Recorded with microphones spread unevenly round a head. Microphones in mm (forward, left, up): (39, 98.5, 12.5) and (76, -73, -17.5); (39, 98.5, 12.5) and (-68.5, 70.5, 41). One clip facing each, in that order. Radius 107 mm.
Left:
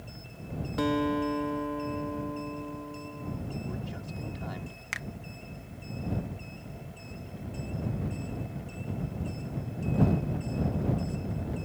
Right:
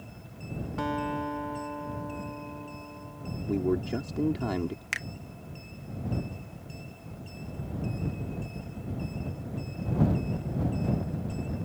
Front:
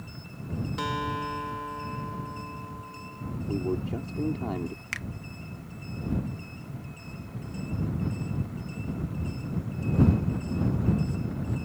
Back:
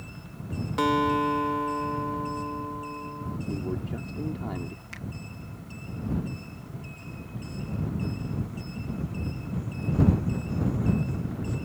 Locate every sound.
0.8 s a guitar: 165° left
3.5 s a man speaking: 60° right
4.9 s a finger snap: 10° right